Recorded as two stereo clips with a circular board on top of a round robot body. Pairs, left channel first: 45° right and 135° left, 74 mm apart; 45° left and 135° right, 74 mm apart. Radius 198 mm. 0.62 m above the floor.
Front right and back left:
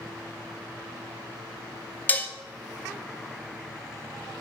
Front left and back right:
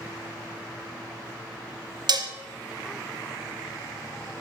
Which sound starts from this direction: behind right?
Dishes clattering, at 2.1 s.